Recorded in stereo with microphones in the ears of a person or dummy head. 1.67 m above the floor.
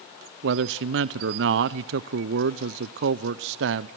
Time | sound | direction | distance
0.4 | a man speaking | 70° right (ahead or behind) | 0.6 m